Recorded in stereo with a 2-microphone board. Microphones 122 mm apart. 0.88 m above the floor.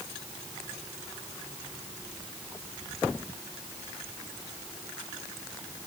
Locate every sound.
Only background noise.